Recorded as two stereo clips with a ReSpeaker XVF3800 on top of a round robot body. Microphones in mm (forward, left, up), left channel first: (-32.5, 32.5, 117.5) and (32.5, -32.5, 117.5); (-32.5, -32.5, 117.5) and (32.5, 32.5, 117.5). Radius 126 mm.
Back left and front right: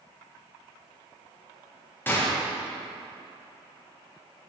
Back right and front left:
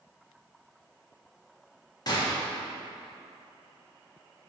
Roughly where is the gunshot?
Behind.